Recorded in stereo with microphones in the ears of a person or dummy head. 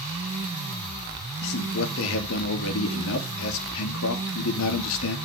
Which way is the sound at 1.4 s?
75° left (ahead or behind).